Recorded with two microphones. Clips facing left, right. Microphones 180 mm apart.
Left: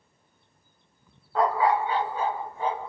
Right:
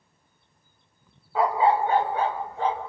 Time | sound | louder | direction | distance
1.4 | a dog barking | right 2 dB | 5° right (ahead or behind) | 0.5 m